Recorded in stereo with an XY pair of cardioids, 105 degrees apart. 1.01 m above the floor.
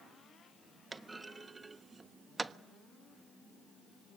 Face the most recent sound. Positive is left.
turn(degrees=-20)